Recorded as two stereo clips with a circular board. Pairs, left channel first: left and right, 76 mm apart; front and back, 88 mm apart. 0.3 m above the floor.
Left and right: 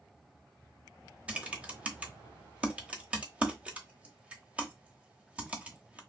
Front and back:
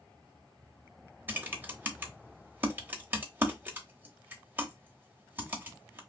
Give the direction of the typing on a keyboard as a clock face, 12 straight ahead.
5 o'clock.